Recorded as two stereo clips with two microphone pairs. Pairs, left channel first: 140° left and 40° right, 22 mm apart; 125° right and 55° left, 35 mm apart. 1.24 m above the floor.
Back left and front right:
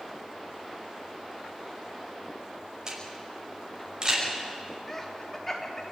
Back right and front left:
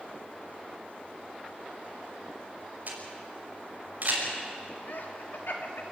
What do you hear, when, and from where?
2.9 s a camera shutter: 15° left, 5.5 m
4.9 s laughter: 145° right, 3.5 m